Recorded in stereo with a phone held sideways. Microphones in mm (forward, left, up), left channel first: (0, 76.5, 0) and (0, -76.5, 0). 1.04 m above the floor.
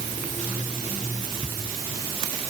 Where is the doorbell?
I don't hear a doorbell.